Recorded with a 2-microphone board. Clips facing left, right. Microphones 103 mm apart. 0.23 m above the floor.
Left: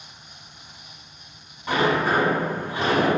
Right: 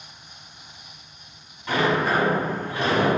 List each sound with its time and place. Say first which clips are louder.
1.7 s a sliding door: left 1 dB; 25° left (ahead or behind), 1.6 m